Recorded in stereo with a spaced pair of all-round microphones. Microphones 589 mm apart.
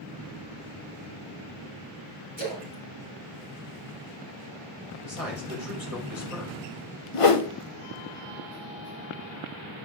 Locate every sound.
2.4 s a splash: 80° left, 4.5 m
5.0 s a man speaking: 70° left (ahead or behind), 3.5 m
7.1 s a whoosh: 60° left (ahead or behind), 0.9 m